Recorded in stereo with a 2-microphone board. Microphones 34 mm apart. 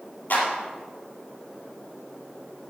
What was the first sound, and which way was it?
A clap, 55° left (ahead or behind).